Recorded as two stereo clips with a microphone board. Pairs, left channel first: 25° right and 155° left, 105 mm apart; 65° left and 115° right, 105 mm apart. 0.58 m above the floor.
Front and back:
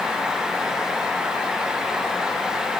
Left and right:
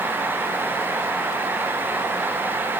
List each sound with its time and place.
Only background noise.